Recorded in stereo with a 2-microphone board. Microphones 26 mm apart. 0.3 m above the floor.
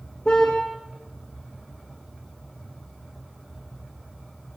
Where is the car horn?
25° left (ahead or behind), 7.5 m.